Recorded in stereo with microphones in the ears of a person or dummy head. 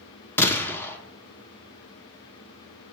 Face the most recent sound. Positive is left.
turn(degrees=5)  # may be behind; listen again after turning